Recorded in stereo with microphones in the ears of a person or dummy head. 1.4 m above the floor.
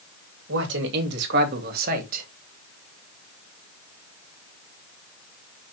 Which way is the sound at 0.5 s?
70° right (ahead or behind).